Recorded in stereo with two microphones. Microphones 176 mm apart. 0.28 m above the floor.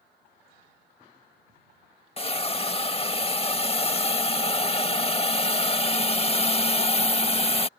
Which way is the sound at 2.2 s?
35° left (ahead or behind).